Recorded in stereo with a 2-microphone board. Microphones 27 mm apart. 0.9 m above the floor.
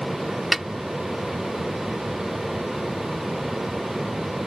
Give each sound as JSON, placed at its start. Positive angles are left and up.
{"t": 0.5, "sound": "a snare drum", "side_deg": -10}